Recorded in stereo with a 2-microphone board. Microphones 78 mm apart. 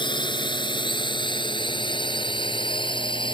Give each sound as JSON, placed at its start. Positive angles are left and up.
{"t": 0.0, "sound": "a drone", "side_deg": 70}